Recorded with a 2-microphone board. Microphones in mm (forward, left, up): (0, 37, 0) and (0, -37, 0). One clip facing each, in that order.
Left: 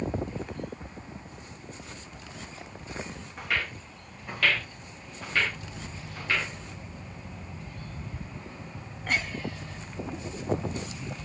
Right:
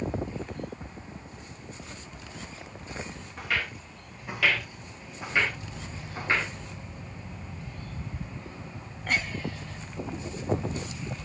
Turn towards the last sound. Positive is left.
turn(degrees=-30)  # may be behind; listen again after turning